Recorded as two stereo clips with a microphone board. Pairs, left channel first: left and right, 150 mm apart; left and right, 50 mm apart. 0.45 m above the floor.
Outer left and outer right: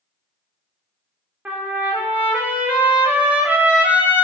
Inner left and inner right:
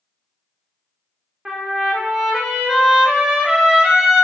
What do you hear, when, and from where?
1.4 s a trumpet: 10° right (ahead or behind), 0.6 m